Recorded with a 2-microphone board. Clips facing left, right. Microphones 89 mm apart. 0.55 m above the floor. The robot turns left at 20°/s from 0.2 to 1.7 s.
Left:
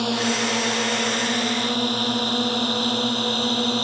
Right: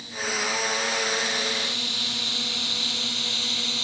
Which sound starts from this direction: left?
A drone, at 0.0 s.